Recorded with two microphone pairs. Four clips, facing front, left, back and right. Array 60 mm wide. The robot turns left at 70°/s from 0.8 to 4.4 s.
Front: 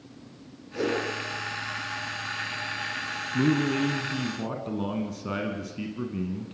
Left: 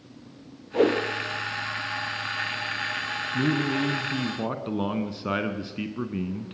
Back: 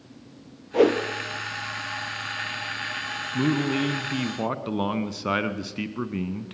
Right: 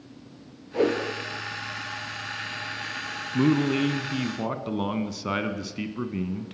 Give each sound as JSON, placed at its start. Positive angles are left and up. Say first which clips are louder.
{"t": 0.7, "sound": "a whoosh", "louder": "left 2 dB, back 9 dB", "azimuth_deg": 175, "distance_m": 2.5}
{"t": 3.3, "sound": "a man speaking", "louder": "right 4 dB, even", "azimuth_deg": -100, "distance_m": 1.5}